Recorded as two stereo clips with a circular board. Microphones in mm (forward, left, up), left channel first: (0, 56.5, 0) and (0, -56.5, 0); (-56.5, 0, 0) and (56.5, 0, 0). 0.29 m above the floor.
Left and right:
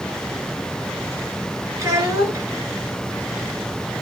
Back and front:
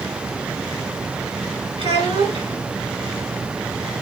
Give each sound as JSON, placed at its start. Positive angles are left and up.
{"t": 1.8, "sound": "a child speaking", "azimuth_deg": -30, "distance_m": 1.9}